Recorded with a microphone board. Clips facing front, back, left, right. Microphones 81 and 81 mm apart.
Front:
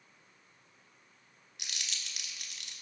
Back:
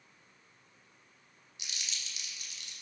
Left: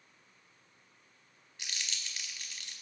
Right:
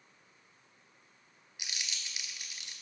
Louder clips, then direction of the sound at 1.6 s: Front 1 dB, even; 15° right.